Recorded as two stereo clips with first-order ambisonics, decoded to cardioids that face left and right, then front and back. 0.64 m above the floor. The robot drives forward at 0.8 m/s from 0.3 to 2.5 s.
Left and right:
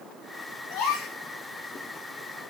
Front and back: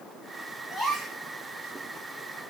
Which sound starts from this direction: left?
A gasp, at 0.7 s.